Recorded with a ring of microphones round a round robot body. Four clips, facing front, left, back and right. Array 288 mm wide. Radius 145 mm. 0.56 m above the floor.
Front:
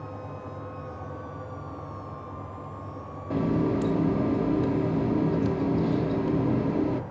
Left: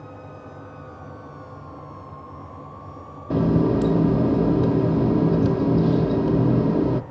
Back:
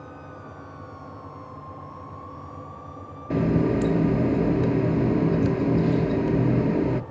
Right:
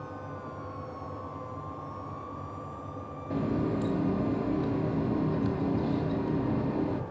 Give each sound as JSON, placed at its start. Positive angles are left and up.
{"t": 3.3, "sound": "a running tap", "azimuth_deg": 115, "distance_m": 0.5}